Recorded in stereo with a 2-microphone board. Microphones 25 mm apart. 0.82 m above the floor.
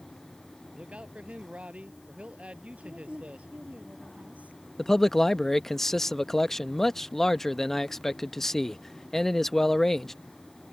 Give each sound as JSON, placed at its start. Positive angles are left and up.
{"t": 0.7, "sound": "a man speaking", "side_deg": -55}
{"t": 2.8, "sound": "a woman speaking", "side_deg": -85}
{"t": 4.8, "sound": "a man speaking", "side_deg": 20}